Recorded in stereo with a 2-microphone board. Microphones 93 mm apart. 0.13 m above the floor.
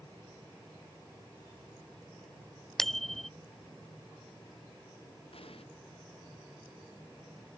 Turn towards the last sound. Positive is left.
turn(degrees=80)